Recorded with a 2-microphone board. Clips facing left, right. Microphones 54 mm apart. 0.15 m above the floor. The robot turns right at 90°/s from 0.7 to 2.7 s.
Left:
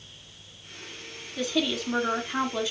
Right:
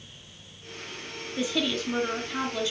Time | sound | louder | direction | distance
1.4 | a woman speaking | left 1 dB | 10° right (ahead or behind) | 1.1 m